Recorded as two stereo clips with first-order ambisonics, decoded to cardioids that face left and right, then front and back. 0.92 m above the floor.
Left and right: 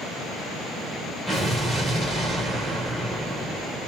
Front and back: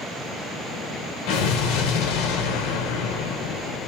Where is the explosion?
10° right, 1.4 m.